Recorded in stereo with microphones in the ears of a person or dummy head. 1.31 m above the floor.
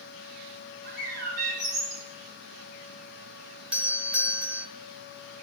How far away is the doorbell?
About 0.8 m.